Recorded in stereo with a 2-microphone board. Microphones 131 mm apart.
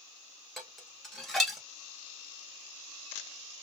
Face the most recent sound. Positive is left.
turn(degrees=0)  # may be behind; listen again after turning